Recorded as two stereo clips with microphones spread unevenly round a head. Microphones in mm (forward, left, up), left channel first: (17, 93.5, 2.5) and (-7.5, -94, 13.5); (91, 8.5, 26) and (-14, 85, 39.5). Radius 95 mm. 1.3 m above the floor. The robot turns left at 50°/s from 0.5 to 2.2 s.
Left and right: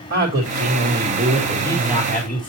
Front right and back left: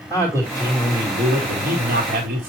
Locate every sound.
0.1 s a man speaking: 140° right, 2 m; by 2.5 s 135° left, 2 m